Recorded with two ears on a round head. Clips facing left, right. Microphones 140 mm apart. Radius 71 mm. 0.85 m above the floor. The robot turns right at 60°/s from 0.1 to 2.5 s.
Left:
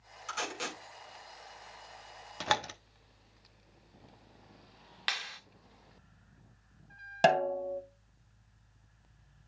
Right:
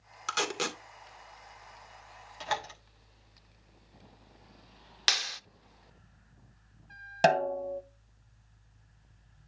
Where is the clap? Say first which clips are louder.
Right 4 dB; 50° right (ahead or behind), 0.8 m.